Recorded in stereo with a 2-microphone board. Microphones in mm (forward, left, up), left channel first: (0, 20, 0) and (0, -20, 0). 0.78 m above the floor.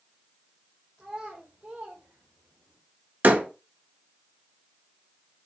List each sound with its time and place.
1.0 s a child speaking: 30° right (ahead or behind), 2.5 m; by 2.8 s 60° right (ahead or behind), 2.0 m
3.2 s a door slam: 45° right (ahead or behind), 1.7 m